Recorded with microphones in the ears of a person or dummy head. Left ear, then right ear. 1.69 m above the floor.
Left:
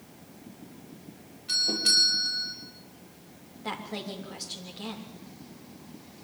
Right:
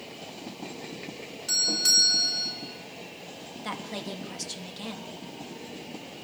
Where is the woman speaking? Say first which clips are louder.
Even; 85° right, 3.5 m.